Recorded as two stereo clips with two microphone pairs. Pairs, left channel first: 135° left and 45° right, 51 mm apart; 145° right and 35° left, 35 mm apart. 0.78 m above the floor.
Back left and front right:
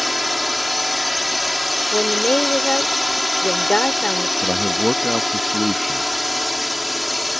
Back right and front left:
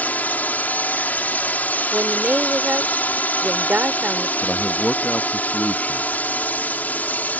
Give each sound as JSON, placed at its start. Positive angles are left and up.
{"t": 0.0, "sound": "a drone", "azimuth_deg": -130}
{"t": 1.9, "sound": "a woman speaking", "azimuth_deg": 70}
{"t": 4.4, "sound": "a man speaking", "azimuth_deg": -135}